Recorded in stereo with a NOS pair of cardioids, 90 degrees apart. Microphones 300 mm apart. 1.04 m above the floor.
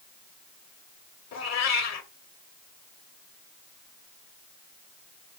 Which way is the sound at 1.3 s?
65° left.